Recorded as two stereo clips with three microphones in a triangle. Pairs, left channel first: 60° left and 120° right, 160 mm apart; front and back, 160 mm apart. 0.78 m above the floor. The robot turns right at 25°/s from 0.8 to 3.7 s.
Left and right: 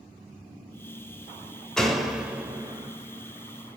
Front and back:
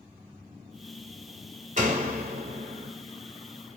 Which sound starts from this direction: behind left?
A door slam, at 1.8 s.